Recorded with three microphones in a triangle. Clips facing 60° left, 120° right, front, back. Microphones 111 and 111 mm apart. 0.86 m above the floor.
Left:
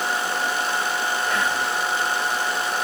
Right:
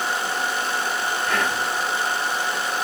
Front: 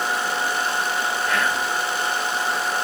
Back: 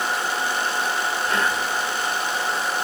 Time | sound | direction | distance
1.3 | whispering | 120° right | 3 m